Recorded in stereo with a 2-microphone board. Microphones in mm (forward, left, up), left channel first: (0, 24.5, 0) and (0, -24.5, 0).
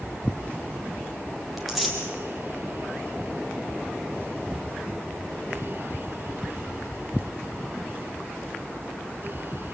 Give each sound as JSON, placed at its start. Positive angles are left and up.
{"t": 1.6, "sound": "tearing paper", "side_deg": 0, "distance_m": 4.5}